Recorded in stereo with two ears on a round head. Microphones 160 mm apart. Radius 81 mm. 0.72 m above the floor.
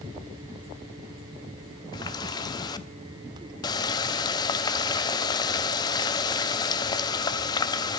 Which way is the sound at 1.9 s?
20° left (ahead or behind).